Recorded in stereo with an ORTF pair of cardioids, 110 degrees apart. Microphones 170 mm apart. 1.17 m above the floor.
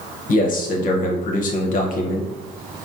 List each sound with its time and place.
0.3 s a man speaking: 50° left, 0.8 m